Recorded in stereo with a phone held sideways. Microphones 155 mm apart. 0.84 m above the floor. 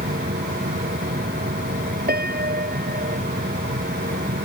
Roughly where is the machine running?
Right.